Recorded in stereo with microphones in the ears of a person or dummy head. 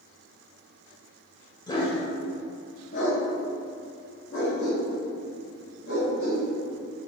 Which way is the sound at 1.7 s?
20° left (ahead or behind).